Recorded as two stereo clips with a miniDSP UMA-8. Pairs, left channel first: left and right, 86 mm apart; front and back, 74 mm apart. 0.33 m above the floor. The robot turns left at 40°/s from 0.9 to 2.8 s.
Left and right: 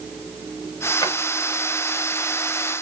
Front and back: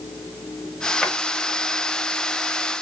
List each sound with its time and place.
1.0 s a drawer: 75° left, 1.0 m; by 1.1 s 70° left, 1.0 m